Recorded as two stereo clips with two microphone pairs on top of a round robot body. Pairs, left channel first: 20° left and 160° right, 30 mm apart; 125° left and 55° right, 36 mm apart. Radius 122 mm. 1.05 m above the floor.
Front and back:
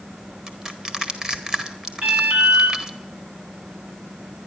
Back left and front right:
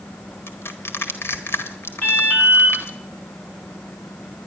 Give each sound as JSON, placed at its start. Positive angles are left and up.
{"t": 0.5, "sound": "crushing", "azimuth_deg": 135, "distance_m": 1.6}
{"t": 2.0, "sound": "an alarm", "azimuth_deg": 180, "distance_m": 8.5}